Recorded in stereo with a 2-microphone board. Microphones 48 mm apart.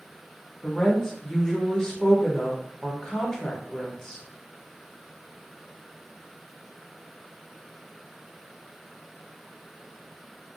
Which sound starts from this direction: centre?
A woman speaking, at 0.6 s.